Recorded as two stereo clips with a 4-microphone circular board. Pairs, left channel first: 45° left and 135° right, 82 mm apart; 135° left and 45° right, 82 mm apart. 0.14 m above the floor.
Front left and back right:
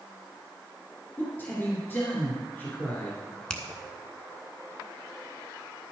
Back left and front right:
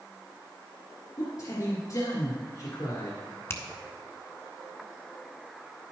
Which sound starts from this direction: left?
A man speaking, at 1.2 s.